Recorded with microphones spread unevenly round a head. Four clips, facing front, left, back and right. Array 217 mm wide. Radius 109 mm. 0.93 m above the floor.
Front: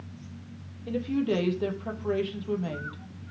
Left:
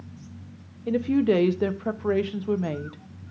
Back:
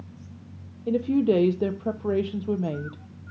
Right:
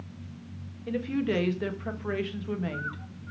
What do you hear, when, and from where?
0.9 s a woman speaking: 145° left, 0.9 m